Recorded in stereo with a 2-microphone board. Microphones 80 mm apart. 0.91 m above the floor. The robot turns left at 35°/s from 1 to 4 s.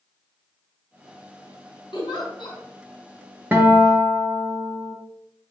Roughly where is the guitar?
Right.